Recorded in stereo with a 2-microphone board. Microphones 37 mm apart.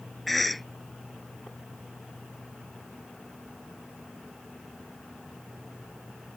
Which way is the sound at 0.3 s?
Centre (ahead or behind).